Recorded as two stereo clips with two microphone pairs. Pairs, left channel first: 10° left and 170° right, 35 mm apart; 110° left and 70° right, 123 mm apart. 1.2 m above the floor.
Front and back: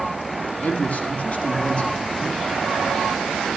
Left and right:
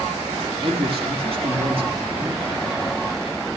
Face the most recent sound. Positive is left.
turn(degrees=-35)